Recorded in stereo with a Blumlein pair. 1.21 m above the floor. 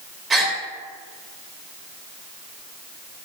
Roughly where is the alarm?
I don't hear an alarm.